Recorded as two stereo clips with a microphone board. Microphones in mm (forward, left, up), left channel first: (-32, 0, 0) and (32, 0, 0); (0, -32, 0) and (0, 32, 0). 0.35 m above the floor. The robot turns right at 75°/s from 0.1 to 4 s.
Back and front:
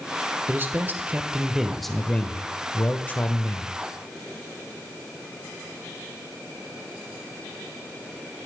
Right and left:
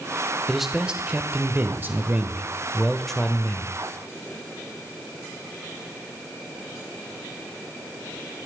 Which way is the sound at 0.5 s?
5° right.